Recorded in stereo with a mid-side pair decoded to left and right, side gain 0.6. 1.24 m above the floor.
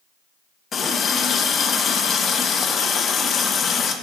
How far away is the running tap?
About 0.9 m.